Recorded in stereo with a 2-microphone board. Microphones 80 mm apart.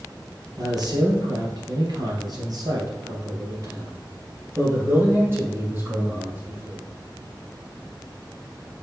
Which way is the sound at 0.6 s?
55° right (ahead or behind).